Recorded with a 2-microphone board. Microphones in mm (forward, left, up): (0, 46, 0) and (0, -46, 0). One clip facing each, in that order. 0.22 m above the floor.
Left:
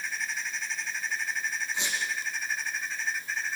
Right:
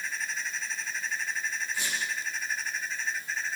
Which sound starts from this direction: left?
A squeak, at 1.7 s.